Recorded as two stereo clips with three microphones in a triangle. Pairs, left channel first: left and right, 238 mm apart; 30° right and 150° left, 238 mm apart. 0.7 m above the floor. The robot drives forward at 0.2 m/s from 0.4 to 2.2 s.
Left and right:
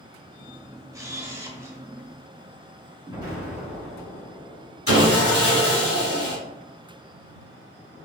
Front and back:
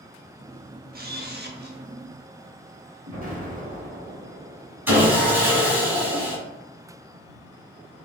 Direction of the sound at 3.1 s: 160° right.